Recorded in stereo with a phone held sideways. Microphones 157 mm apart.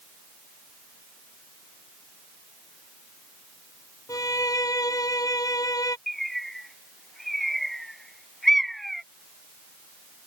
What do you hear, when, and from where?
4.1 s a violin: 20° left (ahead or behind)
6.1 s a bird: centre (ahead or behind)